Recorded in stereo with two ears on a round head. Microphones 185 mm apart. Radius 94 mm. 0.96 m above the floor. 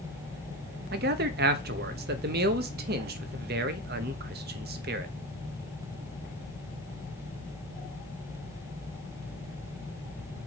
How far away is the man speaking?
About 0.9 m.